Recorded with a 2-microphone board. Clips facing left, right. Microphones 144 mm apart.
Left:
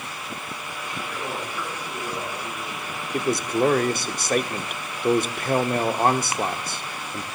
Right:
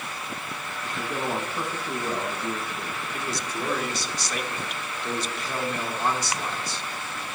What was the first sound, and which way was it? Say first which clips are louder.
A man speaking: right 3 dB; 50° right (ahead or behind).